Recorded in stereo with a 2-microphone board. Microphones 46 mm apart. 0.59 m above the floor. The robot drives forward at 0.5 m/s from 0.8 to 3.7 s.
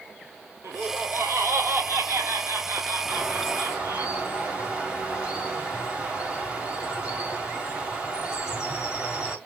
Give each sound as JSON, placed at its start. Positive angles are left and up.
{"t": 0.6, "sound": "laughter", "side_deg": -70, "distance_m": 2.0}
{"t": 3.1, "sound": "a bird", "side_deg": -25, "distance_m": 1.7}